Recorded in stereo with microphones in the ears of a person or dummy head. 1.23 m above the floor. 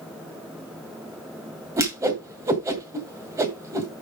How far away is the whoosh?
About 1.9 m.